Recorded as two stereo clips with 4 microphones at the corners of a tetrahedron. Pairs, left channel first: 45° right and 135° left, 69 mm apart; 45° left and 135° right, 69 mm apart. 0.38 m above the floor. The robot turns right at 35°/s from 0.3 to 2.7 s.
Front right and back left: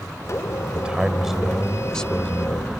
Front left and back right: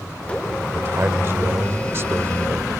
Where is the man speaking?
165° right; by 2.7 s 95° right.